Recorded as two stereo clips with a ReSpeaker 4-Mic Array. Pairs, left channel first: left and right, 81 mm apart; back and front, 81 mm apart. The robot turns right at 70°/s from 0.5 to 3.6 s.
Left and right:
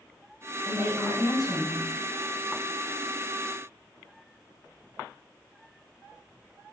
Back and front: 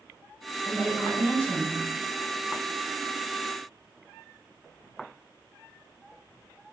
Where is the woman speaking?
65° right, 1.6 m; by 2.0 s 30° left, 1.6 m.